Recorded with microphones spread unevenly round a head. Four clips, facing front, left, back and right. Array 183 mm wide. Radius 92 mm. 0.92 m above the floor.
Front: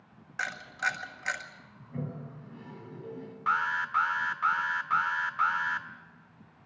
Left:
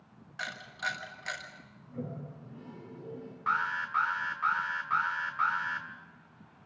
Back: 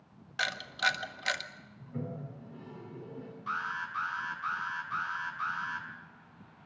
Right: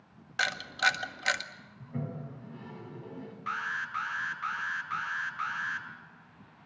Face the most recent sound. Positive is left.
turn(degrees=25)